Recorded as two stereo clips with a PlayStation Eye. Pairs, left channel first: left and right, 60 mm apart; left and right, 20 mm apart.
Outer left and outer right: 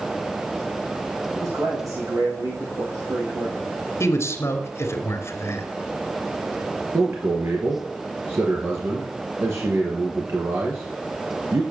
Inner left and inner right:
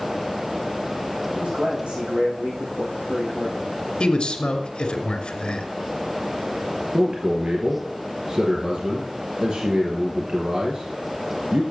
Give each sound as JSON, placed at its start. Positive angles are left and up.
{"t": 1.4, "sound": "a man speaking", "side_deg": -70, "distance_m": 7.0}
{"t": 4.0, "sound": "a man speaking", "side_deg": 50, "distance_m": 2.0}
{"t": 6.9, "sound": "a man speaking", "side_deg": -50, "distance_m": 2.5}